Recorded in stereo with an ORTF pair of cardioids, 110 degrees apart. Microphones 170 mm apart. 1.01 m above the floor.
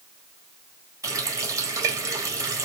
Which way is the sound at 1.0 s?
20° right.